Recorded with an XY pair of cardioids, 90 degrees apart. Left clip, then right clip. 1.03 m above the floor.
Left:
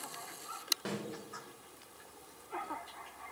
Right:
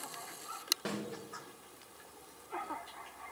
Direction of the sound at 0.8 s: 10° right.